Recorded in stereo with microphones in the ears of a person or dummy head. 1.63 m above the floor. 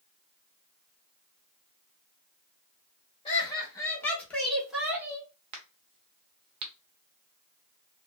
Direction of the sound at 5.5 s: 30° right (ahead or behind).